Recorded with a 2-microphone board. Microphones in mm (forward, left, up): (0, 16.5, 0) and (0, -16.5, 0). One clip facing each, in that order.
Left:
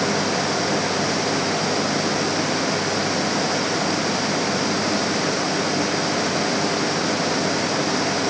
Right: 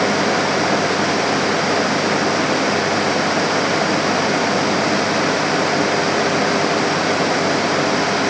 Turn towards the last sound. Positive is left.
No sound to turn to.